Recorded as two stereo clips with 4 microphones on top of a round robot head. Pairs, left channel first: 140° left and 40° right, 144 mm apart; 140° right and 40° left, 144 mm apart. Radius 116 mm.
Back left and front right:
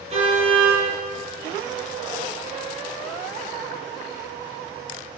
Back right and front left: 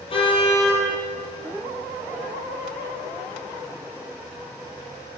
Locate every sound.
0.1 s a car horn: 85° right, 9 m